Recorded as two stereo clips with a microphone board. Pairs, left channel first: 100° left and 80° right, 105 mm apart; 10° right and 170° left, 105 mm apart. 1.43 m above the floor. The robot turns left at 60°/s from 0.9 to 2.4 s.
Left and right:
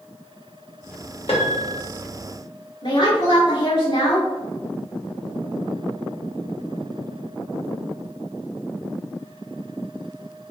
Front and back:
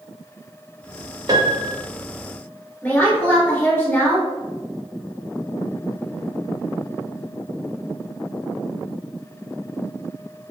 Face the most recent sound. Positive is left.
turn(degrees=60)